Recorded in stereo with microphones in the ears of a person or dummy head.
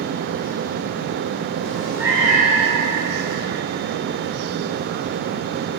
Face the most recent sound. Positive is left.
turn(degrees=-35)  # may be behind; listen again after turning